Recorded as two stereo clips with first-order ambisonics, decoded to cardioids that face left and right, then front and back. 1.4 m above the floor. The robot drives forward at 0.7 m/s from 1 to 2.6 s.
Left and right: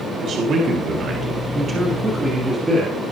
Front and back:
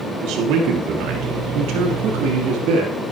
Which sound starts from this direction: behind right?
A man speaking, at 0.2 s.